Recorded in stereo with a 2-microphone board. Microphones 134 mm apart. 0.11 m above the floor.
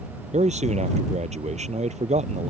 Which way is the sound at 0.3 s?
60° right (ahead or behind).